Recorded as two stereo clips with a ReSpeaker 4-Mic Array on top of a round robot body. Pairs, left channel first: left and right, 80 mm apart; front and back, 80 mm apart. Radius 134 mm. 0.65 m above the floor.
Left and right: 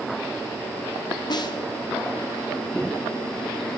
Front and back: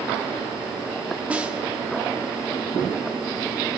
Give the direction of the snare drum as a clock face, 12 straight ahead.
8 o'clock.